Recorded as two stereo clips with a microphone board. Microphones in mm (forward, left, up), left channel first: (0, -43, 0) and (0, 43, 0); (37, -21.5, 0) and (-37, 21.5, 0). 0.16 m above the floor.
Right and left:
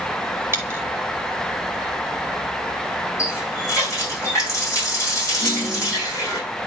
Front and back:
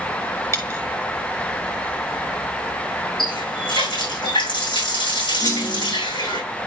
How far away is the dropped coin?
About 2 m.